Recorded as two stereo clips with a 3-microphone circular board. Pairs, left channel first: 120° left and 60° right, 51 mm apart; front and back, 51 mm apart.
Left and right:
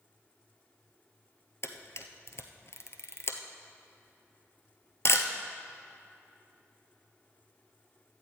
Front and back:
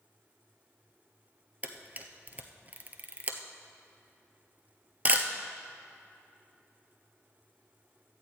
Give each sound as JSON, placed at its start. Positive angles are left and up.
{"t": 1.6, "sound": "a camera shutter", "azimuth_deg": 130, "distance_m": 0.9}